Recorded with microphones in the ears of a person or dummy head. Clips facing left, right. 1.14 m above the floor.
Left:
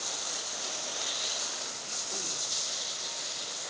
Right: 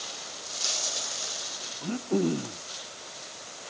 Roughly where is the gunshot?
I don't hear a gunshot.